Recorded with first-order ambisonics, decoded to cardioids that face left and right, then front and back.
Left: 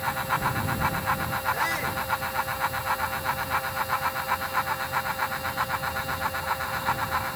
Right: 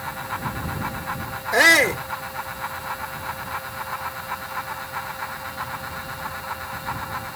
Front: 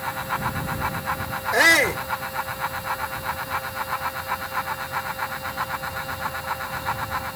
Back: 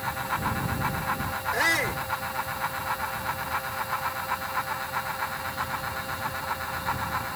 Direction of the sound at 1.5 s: 60° right.